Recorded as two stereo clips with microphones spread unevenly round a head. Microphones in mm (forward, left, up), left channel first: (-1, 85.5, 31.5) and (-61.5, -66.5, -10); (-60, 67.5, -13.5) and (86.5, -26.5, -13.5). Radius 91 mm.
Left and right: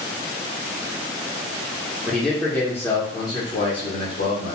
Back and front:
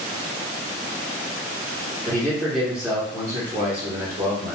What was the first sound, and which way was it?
A man speaking, 160° right.